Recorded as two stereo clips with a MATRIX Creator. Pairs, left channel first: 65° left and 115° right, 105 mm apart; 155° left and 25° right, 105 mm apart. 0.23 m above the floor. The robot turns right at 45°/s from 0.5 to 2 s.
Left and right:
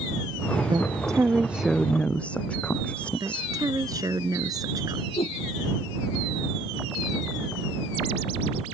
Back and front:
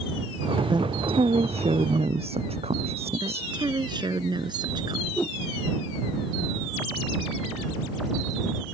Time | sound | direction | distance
0.7 | a woman speaking | 70° right | ?
3.2 | a woman speaking | 60° right | ?
5.2 | a whoosh | 80° left | ?